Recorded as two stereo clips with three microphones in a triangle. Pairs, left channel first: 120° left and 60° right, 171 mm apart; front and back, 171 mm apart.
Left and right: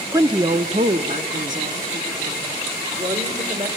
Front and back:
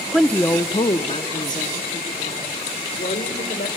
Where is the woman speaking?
95° right, 0.6 m; by 3.7 s 20° right, 2.5 m.